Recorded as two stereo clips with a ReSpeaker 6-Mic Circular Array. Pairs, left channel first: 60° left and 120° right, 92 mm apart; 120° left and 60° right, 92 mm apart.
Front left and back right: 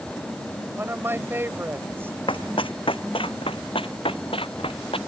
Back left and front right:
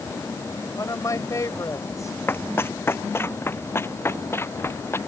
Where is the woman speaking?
175° left.